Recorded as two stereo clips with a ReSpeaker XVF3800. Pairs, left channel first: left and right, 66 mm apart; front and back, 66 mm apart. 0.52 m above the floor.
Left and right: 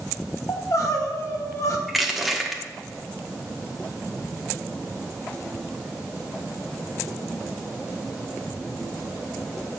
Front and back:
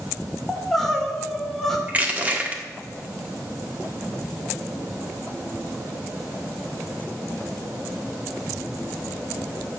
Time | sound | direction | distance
0.5 | crying | 85° left | 1.4 m
1.9 | crushing | straight behind | 1.2 m